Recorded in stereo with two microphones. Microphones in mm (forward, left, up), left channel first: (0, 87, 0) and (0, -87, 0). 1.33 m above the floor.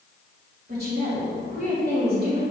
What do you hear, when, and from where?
0.7 s a woman speaking: 60° right (ahead or behind), 3 m